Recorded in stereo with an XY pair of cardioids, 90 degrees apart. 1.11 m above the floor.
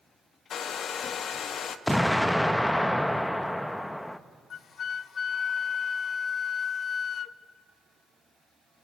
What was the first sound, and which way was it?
A hair dryer, 70° left.